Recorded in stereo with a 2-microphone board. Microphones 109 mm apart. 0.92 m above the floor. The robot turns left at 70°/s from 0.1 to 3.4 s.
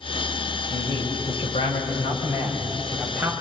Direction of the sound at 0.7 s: 165° left.